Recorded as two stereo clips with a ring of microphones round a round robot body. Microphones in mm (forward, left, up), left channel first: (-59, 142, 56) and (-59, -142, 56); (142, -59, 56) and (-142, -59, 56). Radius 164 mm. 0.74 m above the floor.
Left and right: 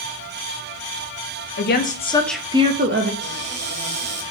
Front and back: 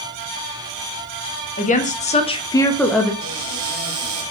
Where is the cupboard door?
140° right, 3 m.